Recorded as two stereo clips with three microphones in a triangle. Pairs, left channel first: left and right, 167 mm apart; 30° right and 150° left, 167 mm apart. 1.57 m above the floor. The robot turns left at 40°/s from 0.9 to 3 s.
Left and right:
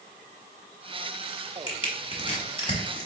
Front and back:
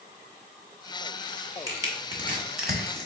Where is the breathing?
No breathing in this recording.